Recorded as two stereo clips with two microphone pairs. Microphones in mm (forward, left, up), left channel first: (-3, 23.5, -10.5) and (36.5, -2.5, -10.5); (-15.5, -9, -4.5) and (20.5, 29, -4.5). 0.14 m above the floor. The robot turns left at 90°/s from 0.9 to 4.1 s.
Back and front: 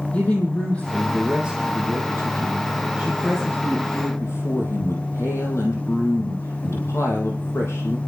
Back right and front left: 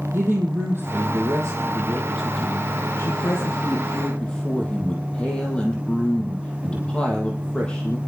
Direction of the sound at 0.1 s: 85° left.